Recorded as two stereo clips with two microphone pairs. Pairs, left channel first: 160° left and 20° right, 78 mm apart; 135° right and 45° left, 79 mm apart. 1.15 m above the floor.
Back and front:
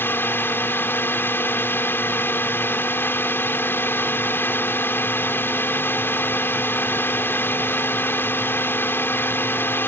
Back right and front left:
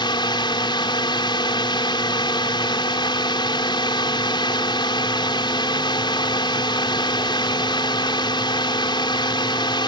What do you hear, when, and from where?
0.0 s a drone: 140° right